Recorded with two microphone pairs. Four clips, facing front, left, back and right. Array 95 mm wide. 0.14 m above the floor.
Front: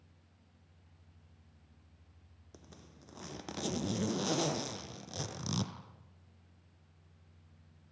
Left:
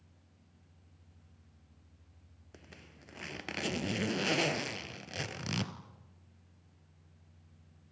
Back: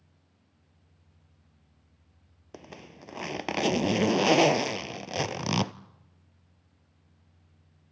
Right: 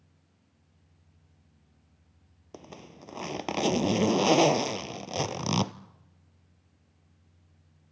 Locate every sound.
2.5 s a zipper: 145° right, 0.6 m